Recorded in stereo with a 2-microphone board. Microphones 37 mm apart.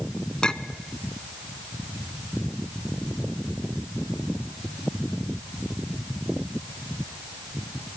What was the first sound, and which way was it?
A clink, 20° left (ahead or behind).